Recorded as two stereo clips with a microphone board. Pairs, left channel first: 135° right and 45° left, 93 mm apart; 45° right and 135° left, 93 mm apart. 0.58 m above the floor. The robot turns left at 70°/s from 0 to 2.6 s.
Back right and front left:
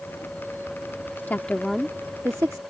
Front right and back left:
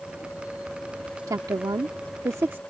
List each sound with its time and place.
1.3 s a woman speaking: 165° left; by 2.6 s 75° left